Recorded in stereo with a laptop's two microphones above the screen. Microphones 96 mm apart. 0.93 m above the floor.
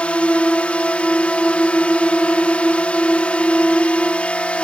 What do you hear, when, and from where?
0.0 s a drone: 15° left (ahead or behind)